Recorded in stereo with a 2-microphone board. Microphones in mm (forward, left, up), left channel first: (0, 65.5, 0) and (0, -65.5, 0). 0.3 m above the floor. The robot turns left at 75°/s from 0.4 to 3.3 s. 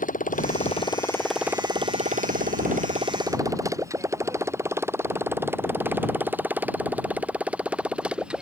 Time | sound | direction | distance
0.0 | a motorcycle | 75° left (ahead or behind) | ?